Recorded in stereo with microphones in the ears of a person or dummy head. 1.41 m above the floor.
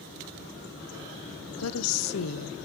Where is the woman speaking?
75° left (ahead or behind), 0.6 m.